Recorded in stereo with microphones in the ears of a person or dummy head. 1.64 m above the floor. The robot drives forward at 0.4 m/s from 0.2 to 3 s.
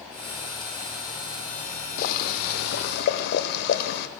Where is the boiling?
55° left (ahead or behind), 0.6 m.